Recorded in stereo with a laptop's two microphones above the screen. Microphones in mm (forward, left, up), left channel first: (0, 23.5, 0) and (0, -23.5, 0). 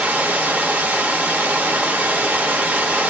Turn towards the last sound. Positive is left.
turn(degrees=-35)  # may be behind; listen again after turning